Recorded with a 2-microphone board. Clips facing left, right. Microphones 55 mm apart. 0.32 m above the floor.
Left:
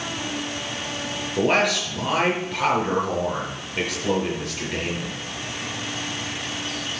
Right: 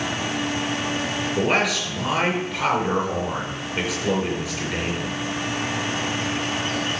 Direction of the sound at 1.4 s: 5° right (ahead or behind).